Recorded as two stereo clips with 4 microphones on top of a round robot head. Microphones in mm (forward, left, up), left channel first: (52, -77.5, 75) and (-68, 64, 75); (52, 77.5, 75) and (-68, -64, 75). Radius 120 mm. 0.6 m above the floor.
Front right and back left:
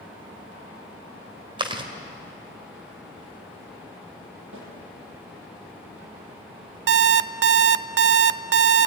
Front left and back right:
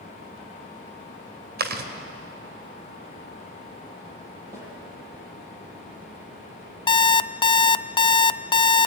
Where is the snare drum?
155° left, 9.5 m.